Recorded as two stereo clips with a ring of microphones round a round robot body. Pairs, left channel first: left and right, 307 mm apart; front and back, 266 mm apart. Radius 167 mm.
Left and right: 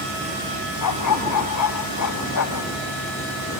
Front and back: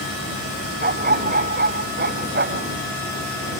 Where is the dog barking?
125° left; by 2.7 s 130° left.